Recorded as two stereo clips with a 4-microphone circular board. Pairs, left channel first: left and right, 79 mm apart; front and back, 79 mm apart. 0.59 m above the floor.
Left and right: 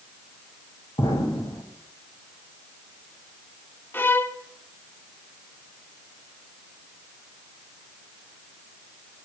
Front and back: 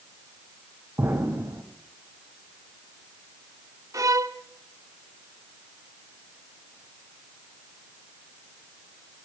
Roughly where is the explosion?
Behind left.